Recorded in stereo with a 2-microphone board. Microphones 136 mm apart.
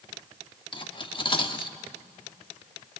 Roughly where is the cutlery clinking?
Left.